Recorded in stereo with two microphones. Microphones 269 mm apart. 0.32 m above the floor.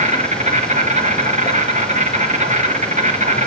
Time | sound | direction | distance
0.0 | an insect | 25° right (ahead or behind) | 3 m